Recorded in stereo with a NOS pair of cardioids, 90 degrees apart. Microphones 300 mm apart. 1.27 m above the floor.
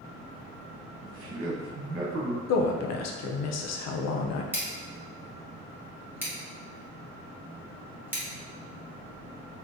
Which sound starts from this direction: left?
A woman speaking, at 2.5 s.